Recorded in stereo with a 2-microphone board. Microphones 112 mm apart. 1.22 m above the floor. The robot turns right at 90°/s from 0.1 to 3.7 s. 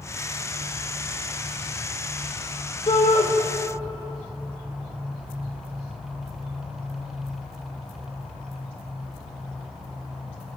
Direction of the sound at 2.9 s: 50° left.